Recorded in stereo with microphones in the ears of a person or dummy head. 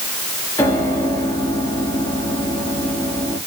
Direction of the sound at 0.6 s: 20° left (ahead or behind).